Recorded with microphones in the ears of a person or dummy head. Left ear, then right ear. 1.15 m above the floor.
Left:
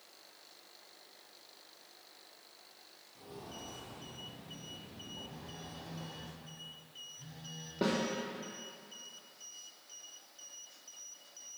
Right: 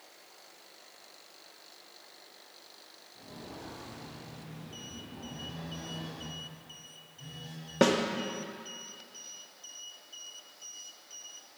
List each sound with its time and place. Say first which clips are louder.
3.1 s footsteps: right 1 dB; 50° left (ahead or behind), 1.9 m; by 6.3 s 10° right (ahead or behind), 1.7 m
5.3 s a phone buzzing: right 6 dB; 5° right (ahead or behind), 1.7 m
7.8 s a snare drum: right 9 dB; 60° right (ahead or behind), 0.9 m